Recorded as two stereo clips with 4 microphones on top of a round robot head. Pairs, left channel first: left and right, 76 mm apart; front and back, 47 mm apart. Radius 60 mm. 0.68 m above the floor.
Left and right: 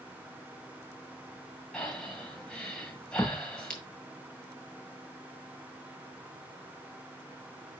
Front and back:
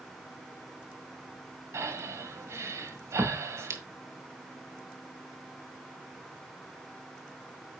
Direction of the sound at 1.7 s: 170° left.